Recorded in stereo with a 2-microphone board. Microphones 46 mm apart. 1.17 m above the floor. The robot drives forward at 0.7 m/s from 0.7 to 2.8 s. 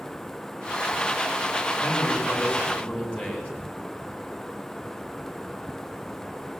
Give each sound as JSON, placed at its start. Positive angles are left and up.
{"t": 1.8, "sound": "a man speaking", "side_deg": 40, "distance_m": 8.0}